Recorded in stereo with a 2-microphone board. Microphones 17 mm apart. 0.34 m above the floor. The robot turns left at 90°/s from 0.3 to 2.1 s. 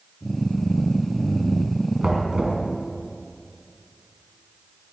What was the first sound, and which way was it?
Knocking, 45° right (ahead or behind).